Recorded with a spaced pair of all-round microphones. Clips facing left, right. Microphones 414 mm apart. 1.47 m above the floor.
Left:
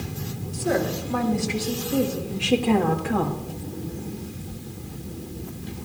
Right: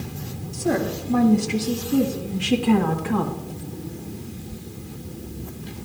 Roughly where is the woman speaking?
Right.